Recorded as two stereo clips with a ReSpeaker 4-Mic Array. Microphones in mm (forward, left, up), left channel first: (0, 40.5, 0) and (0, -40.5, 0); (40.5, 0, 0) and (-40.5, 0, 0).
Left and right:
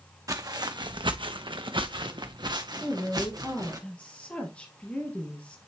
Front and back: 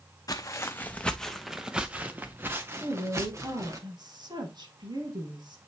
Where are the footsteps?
45° right, 0.8 m; by 3.8 s 130° right, 1.9 m.